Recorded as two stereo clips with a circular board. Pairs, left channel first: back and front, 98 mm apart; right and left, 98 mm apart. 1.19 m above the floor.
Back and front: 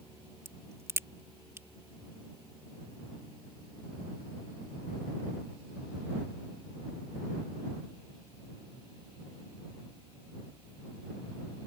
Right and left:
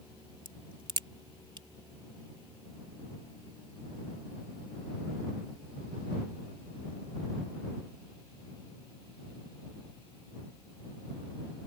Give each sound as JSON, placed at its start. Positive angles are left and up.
{"t": 0.5, "sound": "a crack", "azimuth_deg": 60}